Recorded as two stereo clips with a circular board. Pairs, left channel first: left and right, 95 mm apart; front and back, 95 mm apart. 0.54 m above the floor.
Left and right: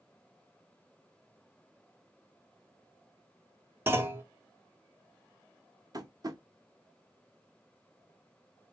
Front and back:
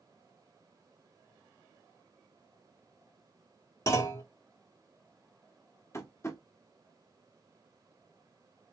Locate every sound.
3.9 s a clunk: 40° right, 1.0 m
5.9 s tapping: 55° right, 0.9 m